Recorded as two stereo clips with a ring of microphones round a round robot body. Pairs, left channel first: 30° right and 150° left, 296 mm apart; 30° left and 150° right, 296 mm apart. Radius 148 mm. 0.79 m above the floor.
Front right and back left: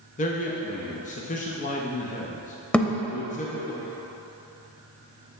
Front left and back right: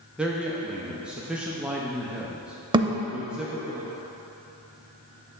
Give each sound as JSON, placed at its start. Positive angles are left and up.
{"t": 0.2, "sound": "a man speaking", "azimuth_deg": -65, "distance_m": 0.6}
{"t": 2.7, "sound": "a thud", "azimuth_deg": -110, "distance_m": 0.5}